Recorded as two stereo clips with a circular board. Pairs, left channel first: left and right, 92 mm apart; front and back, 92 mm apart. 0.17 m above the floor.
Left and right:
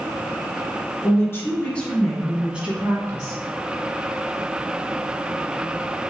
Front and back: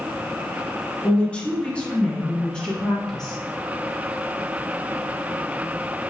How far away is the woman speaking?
About 1.4 m.